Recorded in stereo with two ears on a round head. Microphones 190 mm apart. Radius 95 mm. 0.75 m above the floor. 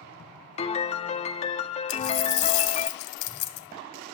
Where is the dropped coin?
70° left (ahead or behind), 2.0 m.